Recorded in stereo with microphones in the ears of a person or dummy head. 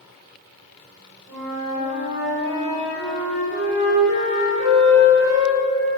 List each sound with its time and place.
1.3 s a flute: 5° right (ahead or behind), 1.6 m